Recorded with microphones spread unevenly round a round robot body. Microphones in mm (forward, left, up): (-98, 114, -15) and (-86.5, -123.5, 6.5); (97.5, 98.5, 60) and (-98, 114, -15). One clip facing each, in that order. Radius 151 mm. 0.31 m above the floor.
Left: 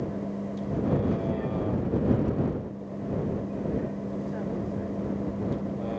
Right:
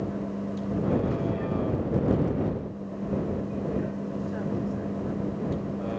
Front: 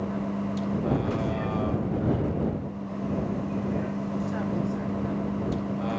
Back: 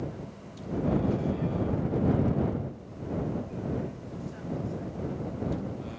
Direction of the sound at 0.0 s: Straight ahead.